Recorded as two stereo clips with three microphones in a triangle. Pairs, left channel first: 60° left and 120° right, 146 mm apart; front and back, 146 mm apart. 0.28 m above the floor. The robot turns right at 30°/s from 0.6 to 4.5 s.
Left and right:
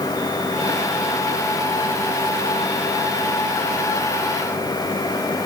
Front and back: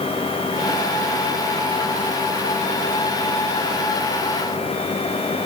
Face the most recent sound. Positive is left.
No sound to turn to.